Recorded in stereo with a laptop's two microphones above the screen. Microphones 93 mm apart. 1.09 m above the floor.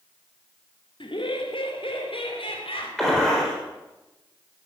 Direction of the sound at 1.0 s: 65° left (ahead or behind).